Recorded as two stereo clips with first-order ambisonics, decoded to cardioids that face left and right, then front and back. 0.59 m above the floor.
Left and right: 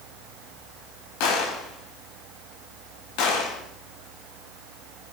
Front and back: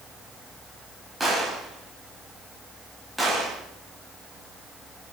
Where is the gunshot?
95° left, 5 m.